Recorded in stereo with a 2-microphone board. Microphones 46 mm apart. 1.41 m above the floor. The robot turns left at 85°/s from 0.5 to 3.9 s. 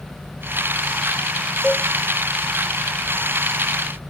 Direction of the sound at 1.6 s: 5° left (ahead or behind).